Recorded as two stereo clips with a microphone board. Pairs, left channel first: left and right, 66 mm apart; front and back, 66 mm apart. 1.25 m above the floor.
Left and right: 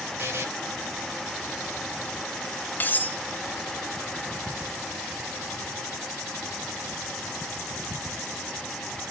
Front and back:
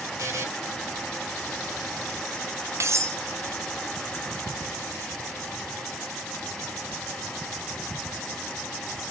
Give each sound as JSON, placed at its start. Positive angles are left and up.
{"t": 0.2, "sound": "a buzzer", "azimuth_deg": -135, "distance_m": 2.5}
{"t": 2.8, "sound": "cutlery clinking", "azimuth_deg": 145, "distance_m": 0.6}